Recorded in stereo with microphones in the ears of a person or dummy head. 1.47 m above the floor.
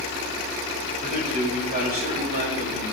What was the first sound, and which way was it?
A man speaking, 35° right (ahead or behind).